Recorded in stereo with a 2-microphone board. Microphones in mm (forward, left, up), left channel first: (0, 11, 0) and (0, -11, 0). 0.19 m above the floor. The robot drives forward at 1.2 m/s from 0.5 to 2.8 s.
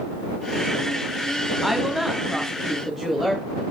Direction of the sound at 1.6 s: 10° right (ahead or behind).